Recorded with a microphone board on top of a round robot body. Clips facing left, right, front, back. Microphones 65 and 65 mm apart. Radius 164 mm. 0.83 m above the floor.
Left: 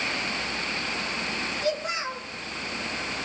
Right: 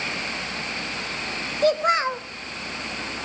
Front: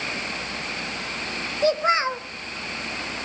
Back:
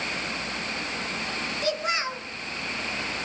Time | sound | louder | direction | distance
1.6 | a child speaking | right 11 dB, front 8 dB | 55° right | 1.1 m